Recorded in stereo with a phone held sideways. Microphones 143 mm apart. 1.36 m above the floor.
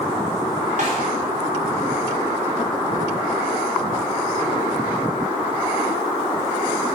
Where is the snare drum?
60° right (ahead or behind), 5 m.